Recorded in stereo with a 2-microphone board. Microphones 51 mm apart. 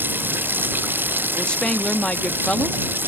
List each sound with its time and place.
0.0 s running water: 40° right (ahead or behind)
1.4 s a woman speaking: 20° left (ahead or behind)